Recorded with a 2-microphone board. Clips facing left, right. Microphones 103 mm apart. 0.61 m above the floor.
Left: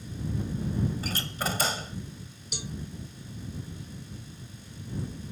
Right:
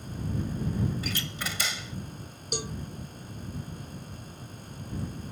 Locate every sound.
1.0 s a door slam: 40° left (ahead or behind)
2.5 s a cowbell: 55° right (ahead or behind)